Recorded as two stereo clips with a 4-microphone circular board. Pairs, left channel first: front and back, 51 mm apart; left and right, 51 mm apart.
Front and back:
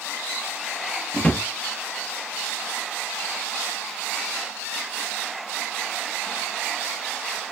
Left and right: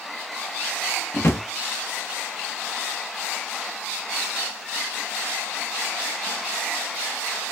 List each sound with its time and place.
1.1 s a drawer: 60° left, 0.6 m